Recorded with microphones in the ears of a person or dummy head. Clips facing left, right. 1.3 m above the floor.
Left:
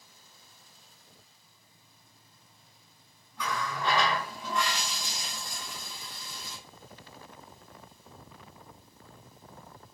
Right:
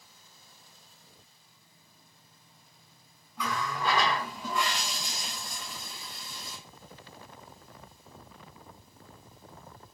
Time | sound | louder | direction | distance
3.4 | a running tap | right 1 dB | 5° right (ahead or behind) | 1.1 m